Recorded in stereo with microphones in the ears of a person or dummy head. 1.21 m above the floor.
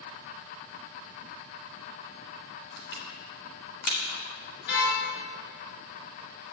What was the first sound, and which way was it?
Crushing, 65° left (ahead or behind).